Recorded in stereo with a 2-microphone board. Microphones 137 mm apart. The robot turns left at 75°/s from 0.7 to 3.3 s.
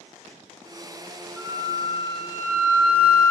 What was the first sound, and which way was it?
A flute, 15° left.